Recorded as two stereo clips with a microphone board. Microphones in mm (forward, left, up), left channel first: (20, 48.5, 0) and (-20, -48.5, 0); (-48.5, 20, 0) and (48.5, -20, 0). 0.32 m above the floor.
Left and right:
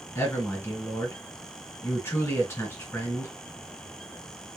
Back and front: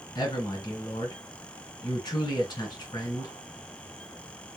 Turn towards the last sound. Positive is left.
turn(degrees=125)